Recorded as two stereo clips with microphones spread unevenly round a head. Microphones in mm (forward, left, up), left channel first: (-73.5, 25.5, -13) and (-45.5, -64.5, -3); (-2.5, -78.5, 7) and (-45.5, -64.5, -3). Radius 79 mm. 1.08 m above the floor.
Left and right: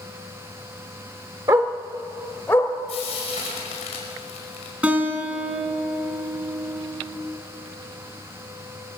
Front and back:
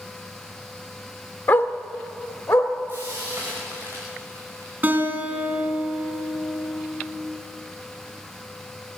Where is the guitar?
145° right, 4 m.